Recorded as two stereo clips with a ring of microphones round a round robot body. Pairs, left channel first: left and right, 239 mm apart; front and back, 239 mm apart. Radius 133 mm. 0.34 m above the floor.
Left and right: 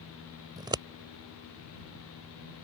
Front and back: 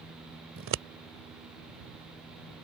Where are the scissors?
160° right.